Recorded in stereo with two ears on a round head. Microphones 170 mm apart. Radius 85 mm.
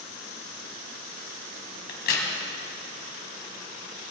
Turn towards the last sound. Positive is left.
turn(degrees=55)  # may be behind; listen again after turning